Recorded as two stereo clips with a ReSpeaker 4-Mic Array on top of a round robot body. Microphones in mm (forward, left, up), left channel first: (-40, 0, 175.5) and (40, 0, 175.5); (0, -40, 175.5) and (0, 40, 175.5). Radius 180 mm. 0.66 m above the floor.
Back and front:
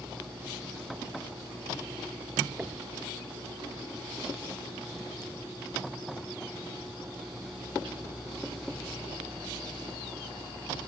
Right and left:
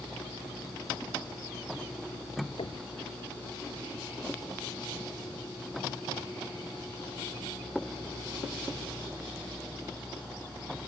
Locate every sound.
2.6 s knocking: 75° right